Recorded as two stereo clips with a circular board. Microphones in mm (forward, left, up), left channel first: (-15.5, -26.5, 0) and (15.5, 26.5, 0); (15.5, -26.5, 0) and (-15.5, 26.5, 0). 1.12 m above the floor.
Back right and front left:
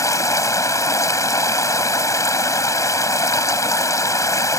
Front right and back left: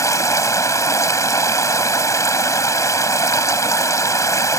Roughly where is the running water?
Right.